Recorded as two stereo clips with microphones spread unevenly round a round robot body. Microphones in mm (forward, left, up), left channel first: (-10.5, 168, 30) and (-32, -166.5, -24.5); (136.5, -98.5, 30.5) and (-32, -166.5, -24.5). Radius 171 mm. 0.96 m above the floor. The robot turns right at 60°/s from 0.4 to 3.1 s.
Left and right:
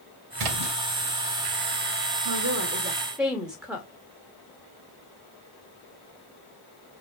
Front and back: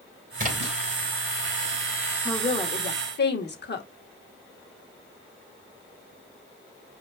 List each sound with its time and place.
0.4 s a splash: 115° right, 3.5 m; by 0.8 s 95° right, 3.5 m
2.2 s a woman speaking: 55° right, 2 m; by 3.9 s 5° right, 2 m